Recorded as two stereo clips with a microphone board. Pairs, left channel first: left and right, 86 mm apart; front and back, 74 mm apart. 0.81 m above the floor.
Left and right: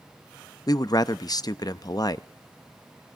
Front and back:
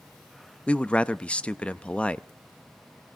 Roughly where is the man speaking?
Left.